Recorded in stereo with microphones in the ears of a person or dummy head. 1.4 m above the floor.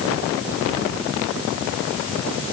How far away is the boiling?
I don't hear boiling.